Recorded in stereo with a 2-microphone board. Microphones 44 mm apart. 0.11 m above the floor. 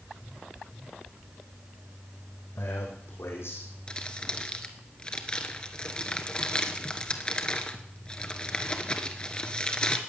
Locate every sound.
2.6 s a man speaking: 75° left (ahead or behind), 5 m; by 3.7 s 70° left (ahead or behind), 5.5 m
3.9 s crumpling: 25° left (ahead or behind), 1.2 m